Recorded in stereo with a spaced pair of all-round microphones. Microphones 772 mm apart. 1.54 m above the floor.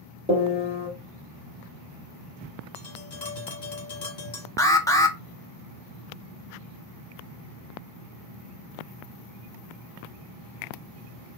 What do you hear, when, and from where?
0.3 s a piano: 10° right (ahead or behind), 1.5 m
2.8 s tapping: 60° left (ahead or behind), 1.6 m
4.6 s an alarm: 5° left (ahead or behind), 0.7 m